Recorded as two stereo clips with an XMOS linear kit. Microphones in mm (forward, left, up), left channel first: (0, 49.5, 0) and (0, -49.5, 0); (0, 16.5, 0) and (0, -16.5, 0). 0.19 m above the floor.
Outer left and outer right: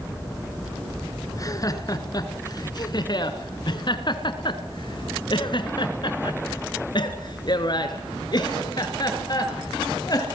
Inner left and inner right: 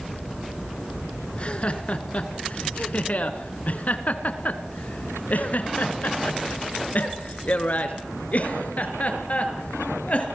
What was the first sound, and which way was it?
Laughter, 40° left (ahead or behind).